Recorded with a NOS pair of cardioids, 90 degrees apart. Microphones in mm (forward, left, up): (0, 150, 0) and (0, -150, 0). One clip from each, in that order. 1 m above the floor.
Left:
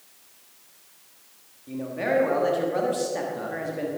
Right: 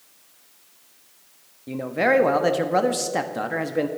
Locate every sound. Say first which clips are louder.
1.7 s a man speaking: right 6 dB; 55° right, 1.2 m